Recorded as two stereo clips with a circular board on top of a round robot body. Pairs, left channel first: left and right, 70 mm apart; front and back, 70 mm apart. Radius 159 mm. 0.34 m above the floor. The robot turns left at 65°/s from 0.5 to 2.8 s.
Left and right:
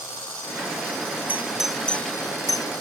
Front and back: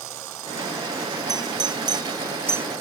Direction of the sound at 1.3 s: 155° right.